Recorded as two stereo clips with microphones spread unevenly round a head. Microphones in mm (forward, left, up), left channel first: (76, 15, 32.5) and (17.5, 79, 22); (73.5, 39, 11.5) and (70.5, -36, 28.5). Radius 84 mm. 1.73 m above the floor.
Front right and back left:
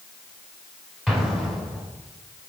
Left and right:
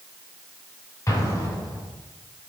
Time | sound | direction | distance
1.1 | an explosion | 35° left | 3 m